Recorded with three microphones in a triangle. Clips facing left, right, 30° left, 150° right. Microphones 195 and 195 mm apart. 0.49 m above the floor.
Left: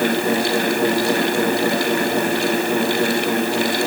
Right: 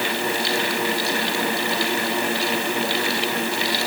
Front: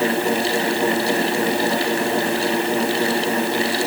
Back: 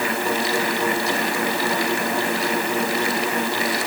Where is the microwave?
I don't hear a microwave.